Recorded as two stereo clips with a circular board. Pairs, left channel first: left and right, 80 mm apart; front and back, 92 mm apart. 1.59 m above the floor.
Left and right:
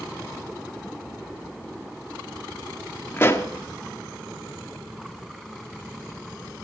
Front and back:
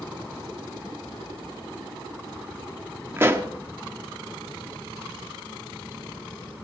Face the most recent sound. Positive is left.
turn(degrees=130)